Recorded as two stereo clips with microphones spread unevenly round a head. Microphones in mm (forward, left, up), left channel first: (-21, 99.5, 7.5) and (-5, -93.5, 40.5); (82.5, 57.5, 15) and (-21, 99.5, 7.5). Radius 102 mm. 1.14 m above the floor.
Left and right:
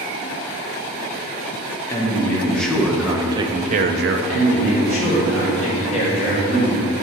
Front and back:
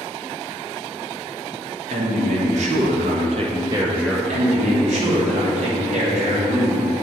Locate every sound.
1.9 s a man speaking: 170° left, 1.3 m; by 4.2 s 110° right, 0.6 m
4.3 s a man speaking: 145° left, 2.5 m